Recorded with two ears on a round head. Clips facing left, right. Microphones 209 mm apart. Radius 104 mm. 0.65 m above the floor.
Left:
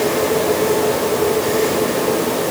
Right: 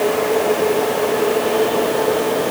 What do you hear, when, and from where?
Only background noise.